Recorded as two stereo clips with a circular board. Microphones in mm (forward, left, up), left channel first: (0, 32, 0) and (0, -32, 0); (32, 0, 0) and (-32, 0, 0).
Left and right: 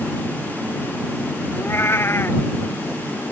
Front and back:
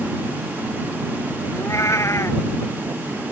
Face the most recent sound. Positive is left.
turn(degrees=40)